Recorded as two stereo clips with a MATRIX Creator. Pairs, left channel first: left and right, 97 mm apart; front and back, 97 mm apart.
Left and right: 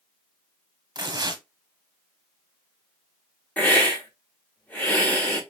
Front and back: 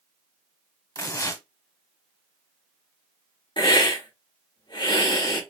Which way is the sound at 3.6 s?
20° left.